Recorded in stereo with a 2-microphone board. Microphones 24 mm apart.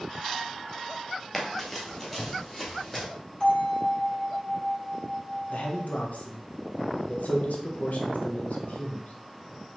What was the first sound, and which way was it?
Running footsteps, 10° left (ahead or behind).